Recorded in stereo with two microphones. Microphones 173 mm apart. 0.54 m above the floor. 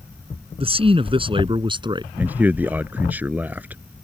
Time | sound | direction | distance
0.6 | a man speaking | 35° right (ahead or behind) | ?
2.2 | a man speaking | 10° right (ahead or behind) | ?